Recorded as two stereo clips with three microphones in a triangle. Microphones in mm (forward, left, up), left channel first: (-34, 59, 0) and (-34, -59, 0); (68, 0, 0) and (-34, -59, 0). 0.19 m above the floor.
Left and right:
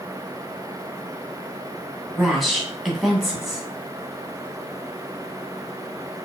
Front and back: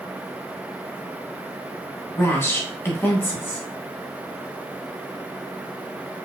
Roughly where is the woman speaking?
Ahead.